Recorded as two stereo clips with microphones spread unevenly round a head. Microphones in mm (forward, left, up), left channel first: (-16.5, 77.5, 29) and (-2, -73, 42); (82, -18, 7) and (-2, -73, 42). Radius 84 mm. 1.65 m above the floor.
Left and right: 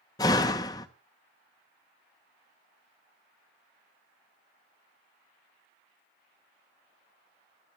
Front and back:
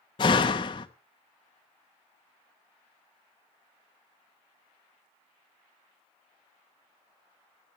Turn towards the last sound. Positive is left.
turn(degrees=55)